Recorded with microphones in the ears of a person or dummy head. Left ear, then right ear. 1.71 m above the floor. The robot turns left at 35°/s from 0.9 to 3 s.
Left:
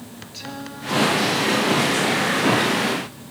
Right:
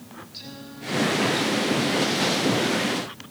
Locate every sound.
0.3 s singing: 150° left, 1.3 m; by 3.3 s 80° left, 1.3 m